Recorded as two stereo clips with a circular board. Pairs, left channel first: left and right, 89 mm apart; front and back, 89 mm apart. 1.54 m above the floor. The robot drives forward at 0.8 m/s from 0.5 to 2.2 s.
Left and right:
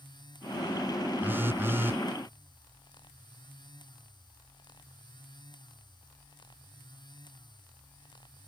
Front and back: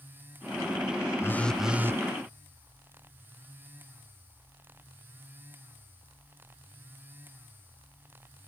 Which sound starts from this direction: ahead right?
A phone buzzing, at 1.2 s.